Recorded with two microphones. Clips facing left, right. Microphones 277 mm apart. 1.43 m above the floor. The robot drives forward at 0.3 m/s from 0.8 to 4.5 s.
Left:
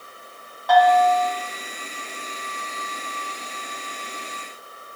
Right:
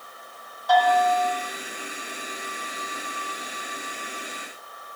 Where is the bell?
65° left (ahead or behind), 1.1 m; by 1.3 s 70° left (ahead or behind), 1.0 m.